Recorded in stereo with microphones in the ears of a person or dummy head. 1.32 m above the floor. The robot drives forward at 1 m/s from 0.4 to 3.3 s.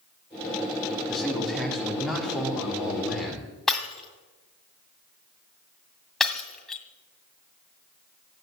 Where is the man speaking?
5° left (ahead or behind), 3 m; by 3.5 s centre (ahead or behind), 5 m.